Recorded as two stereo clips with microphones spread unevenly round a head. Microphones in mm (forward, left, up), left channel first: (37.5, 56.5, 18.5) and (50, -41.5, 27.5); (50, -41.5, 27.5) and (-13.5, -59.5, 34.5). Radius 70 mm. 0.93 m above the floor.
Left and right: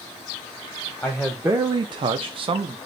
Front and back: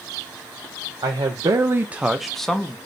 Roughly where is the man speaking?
Behind.